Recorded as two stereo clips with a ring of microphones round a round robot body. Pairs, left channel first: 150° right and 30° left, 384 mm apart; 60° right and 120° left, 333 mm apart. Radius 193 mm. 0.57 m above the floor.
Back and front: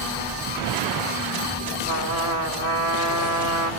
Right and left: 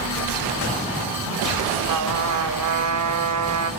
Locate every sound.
1.9 s a trumpet: 85° left, 2.5 m